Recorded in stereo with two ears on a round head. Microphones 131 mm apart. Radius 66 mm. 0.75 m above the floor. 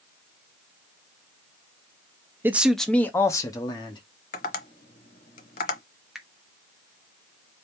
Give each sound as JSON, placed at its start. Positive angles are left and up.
{"t": 2.4, "sound": "a man speaking", "side_deg": -15, "distance_m": 0.6}
{"t": 4.3, "sound": "tapping", "side_deg": 55, "distance_m": 0.8}
{"t": 6.2, "sound": "a finger snap", "side_deg": -5, "distance_m": 0.9}